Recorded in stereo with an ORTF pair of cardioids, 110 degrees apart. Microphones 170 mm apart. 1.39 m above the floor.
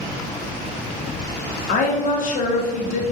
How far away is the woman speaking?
About 0.7 m.